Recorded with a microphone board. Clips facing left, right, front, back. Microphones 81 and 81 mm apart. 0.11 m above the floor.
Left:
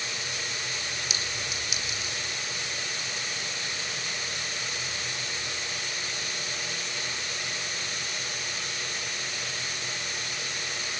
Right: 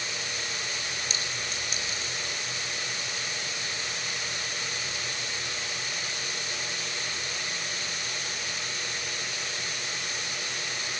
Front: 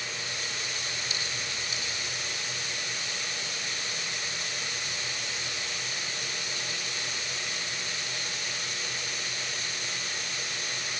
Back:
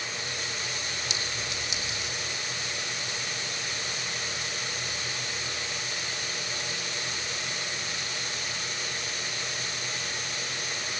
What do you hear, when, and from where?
1.1 s a clink: 170° left, 4 m